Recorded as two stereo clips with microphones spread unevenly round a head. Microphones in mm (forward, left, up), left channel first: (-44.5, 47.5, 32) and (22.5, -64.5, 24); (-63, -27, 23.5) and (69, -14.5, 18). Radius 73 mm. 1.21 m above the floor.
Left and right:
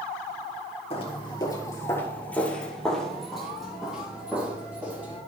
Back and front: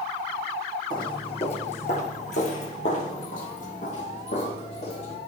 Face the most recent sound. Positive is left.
turn(degrees=-140)